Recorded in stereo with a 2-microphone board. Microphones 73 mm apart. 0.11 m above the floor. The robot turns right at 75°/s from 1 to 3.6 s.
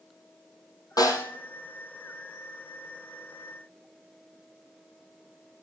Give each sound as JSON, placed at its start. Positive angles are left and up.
{"t": 1.0, "sound": "a snare drum", "side_deg": 60, "distance_m": 5.0}